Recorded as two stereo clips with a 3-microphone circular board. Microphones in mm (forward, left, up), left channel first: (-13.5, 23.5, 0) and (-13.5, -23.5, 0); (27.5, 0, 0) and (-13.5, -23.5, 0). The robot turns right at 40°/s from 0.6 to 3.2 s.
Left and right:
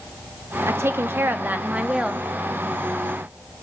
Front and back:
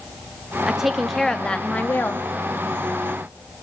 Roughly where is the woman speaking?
Right.